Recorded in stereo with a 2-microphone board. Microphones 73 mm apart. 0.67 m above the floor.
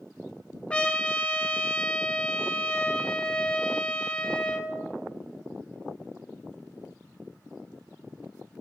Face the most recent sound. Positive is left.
turn(degrees=15)  # may be behind; listen again after turning